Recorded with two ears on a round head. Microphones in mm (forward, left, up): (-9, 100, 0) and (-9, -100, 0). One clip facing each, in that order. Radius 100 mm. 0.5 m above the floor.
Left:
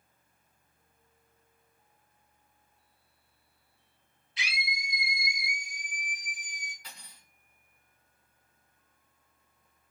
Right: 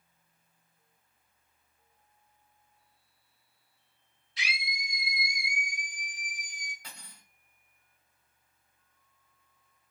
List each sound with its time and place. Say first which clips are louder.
4.4 s a scream: left 1 dB; 35° right (ahead or behind), 1.9 m; by 6.7 s 5° left (ahead or behind), 1.5 m
6.8 s cutlery clinking: right 1 dB; 45° right (ahead or behind), 1.8 m